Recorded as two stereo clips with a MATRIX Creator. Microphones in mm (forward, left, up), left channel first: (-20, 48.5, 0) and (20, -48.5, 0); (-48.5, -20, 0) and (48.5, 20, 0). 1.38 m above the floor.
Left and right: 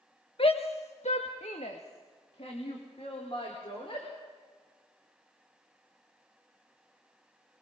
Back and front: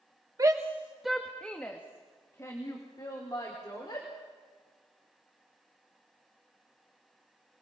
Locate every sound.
0.4 s a shout: 80° left, 1.2 m; by 4.1 s 150° left, 4 m